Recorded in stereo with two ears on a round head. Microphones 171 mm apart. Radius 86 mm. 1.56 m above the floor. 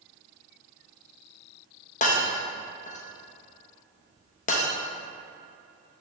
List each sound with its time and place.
2.0 s breaking glass: 40° left (ahead or behind), 0.9 m